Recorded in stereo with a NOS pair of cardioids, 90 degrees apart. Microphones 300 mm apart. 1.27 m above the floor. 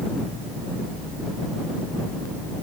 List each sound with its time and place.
Only background noise.